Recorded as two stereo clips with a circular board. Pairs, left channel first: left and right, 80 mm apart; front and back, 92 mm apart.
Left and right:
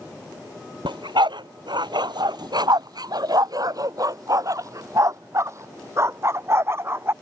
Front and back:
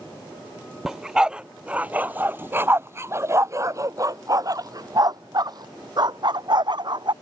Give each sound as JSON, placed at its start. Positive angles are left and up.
{"t": 0.8, "sound": "a dog barking", "azimuth_deg": -95}